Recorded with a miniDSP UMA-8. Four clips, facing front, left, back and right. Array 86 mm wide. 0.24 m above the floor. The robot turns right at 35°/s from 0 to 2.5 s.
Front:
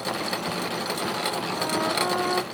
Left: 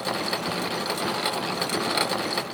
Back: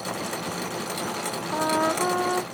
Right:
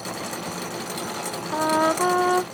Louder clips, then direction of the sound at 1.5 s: Right 6 dB, back 5 dB; 120° right.